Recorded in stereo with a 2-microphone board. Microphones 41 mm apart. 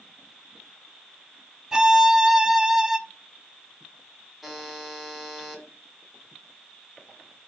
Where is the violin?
15° right (ahead or behind), 0.6 m.